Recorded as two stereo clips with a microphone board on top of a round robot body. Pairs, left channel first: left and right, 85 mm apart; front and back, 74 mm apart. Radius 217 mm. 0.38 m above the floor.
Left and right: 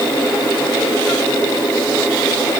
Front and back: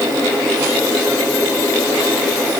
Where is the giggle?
I don't hear a giggle.